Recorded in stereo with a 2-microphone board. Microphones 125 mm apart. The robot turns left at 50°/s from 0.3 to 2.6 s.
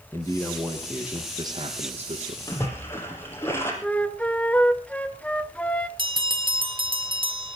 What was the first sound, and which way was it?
A man speaking, 25° left.